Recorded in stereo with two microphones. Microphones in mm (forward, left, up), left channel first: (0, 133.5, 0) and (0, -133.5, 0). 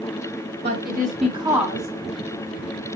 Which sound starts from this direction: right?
A woman speaking, at 0.6 s.